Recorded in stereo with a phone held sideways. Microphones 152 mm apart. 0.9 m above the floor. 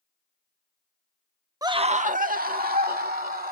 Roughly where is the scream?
Right.